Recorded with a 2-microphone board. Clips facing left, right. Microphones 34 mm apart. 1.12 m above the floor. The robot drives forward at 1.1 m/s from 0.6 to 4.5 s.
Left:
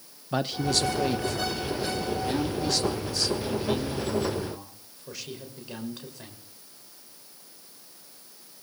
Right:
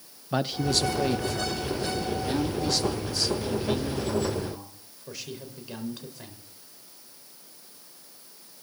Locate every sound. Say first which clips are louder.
0.3 s a man speaking: even; centre (ahead or behind), 0.9 m